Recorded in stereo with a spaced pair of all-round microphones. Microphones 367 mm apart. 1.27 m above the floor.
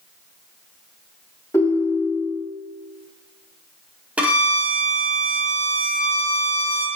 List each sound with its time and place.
1.5 s a ringtone: 5° left (ahead or behind), 0.9 m
4.2 s a violin: 5° right (ahead or behind), 0.5 m